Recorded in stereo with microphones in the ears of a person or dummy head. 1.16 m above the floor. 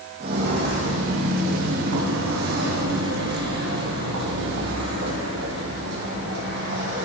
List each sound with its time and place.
0.2 s footsteps: 35° right (ahead or behind), 2.5 m; by 7.0 s 75° right (ahead or behind), 8.5 m